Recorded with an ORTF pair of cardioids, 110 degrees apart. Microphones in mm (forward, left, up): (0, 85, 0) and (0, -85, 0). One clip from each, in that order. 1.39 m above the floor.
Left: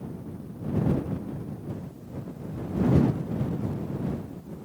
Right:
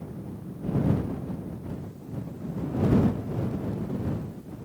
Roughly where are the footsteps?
I don't hear footsteps.